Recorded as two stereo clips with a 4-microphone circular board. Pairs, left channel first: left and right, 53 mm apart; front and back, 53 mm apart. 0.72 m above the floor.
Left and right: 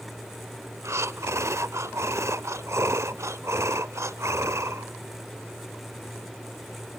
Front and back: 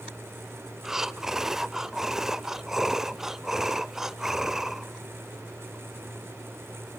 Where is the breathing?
100° right, 0.6 m.